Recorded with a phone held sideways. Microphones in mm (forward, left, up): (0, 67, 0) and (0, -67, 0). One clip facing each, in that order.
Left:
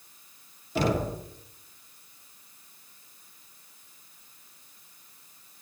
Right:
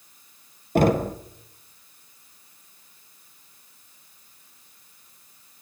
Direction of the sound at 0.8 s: 55° right (ahead or behind).